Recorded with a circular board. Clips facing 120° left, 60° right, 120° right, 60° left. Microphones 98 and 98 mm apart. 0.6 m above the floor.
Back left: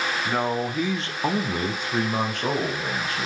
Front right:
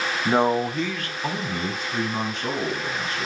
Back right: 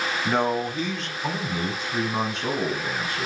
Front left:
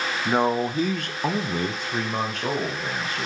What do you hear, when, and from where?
0.2 s a man speaking: 20° right, 0.9 m; by 3.3 s 100° left, 3.5 m